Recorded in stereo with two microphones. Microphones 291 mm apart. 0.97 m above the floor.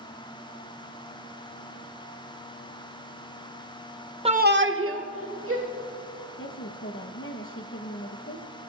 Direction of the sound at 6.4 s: 45° left (ahead or behind).